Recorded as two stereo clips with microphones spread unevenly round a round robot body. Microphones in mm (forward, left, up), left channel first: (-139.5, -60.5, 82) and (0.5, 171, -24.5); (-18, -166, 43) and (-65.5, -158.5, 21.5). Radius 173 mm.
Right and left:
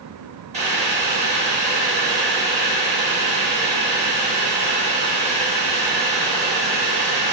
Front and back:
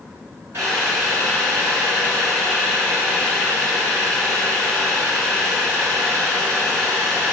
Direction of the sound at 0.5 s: 120° left.